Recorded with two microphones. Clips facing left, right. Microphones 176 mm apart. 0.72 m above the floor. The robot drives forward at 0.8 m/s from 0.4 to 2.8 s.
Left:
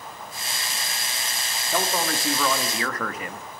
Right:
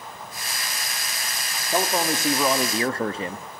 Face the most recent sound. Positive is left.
turn(degrees=-30)  # may be behind; listen again after turning